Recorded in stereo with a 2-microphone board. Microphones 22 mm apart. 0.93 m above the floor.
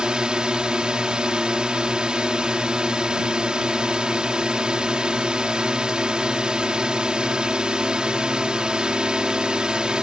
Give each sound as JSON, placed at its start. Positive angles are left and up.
{"t": 0.0, "sound": "a drone", "side_deg": -35}